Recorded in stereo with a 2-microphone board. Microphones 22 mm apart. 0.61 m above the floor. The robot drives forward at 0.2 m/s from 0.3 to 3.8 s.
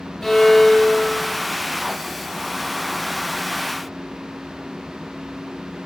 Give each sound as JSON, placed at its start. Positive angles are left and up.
{"t": 0.2, "sound": "a violin", "side_deg": 10, "distance_m": 1.1}